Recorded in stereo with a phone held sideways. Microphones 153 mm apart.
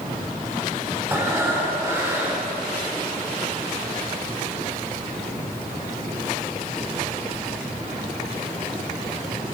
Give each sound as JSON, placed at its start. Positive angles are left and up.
{"t": 1.1, "sound": "breathing", "side_deg": -15, "distance_m": 2.5}